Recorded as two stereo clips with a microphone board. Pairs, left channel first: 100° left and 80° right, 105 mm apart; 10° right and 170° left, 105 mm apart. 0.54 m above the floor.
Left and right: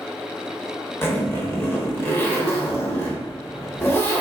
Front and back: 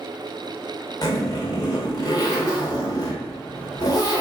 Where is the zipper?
35° left, 1.0 m.